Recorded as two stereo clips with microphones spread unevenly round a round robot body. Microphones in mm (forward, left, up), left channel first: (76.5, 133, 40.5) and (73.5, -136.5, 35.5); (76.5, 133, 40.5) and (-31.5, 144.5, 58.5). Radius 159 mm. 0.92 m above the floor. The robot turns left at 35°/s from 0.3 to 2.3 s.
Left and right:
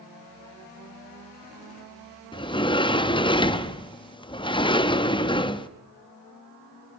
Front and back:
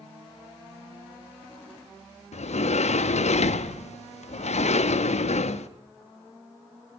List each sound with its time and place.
2.3 s a sliding door: 15° left, 0.7 m